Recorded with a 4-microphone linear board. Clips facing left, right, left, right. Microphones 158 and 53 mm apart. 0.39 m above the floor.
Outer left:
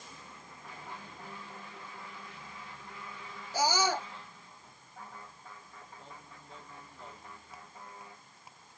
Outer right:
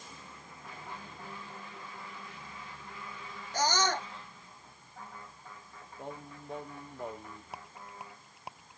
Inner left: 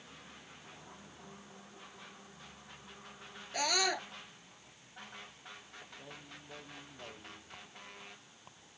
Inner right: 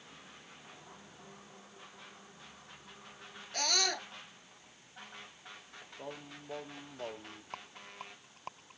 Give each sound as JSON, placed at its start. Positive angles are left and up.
{"t": 3.5, "sound": "a scream", "side_deg": 10}
{"t": 6.0, "sound": "singing", "side_deg": -60}
{"t": 7.5, "sound": "a rattle", "side_deg": -75}